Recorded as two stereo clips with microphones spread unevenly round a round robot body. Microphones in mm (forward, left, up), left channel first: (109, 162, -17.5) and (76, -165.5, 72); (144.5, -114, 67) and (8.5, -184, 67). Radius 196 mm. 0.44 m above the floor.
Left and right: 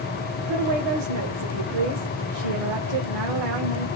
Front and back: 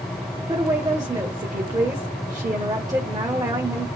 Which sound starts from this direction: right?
A woman speaking, at 0.5 s.